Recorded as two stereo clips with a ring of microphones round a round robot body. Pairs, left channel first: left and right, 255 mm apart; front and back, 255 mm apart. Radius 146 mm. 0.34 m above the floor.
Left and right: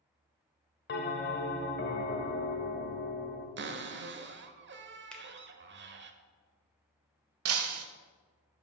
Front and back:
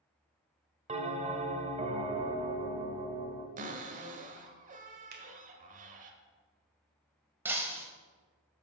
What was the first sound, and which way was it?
A bell, 120° left.